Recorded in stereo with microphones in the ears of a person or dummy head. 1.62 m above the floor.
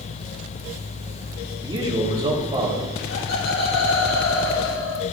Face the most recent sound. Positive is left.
turn(degrees=55)  # may be behind; listen again after turning